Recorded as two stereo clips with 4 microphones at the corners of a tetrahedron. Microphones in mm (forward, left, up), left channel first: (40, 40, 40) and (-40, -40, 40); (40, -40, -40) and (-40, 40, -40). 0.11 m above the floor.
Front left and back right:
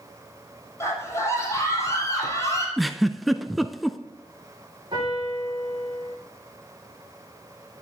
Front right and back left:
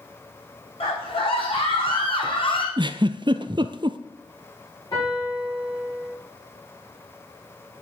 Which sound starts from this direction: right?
A piano, at 4.9 s.